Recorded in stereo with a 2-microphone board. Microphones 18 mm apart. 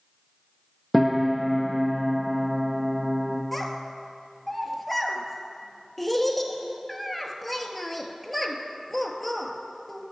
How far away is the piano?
About 0.8 m.